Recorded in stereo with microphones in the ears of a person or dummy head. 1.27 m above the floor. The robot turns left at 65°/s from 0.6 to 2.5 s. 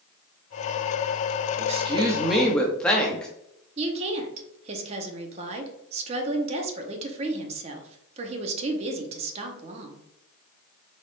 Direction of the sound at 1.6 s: 125° right.